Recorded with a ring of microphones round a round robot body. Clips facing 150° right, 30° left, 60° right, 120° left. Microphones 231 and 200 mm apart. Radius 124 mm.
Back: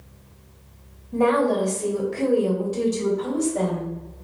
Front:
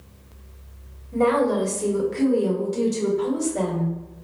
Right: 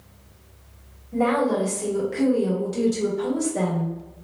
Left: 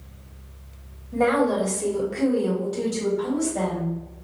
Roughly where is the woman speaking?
Left.